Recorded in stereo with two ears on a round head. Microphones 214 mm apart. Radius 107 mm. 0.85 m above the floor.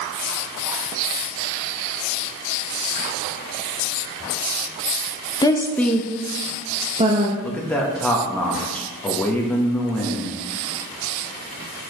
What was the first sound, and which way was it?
A woman speaking, 15° left (ahead or behind).